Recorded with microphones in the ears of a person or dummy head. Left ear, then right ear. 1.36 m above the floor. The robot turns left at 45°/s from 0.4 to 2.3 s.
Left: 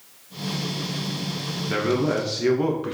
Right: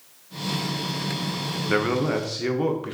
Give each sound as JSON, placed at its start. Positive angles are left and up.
{"t": 1.7, "sound": "a man speaking", "side_deg": -35, "distance_m": 0.6}